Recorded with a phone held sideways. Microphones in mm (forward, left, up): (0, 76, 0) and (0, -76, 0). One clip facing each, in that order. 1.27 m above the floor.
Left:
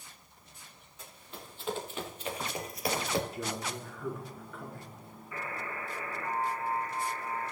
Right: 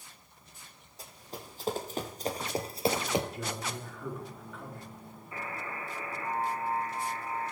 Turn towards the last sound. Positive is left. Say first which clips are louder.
# even
turn(degrees=-30)  # may be behind; listen again after turning